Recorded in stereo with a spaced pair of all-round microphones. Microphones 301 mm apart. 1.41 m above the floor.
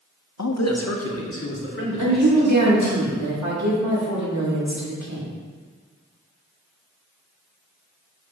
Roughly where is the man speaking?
Left.